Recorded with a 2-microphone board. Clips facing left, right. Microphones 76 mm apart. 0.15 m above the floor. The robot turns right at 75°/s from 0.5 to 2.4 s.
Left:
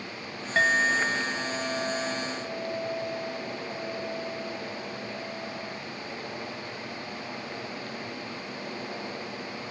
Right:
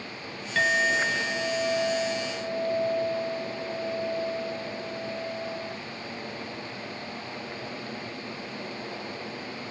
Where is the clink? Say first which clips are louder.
Left 1 dB; 150° left, 1.5 m; by 5.8 s 70° right, 1.5 m.